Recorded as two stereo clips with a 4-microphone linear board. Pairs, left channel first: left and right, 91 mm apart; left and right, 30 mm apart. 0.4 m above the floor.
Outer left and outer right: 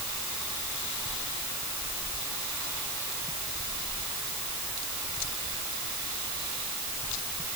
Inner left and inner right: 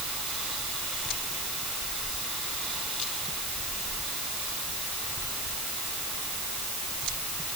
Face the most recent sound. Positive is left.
No sound to turn to.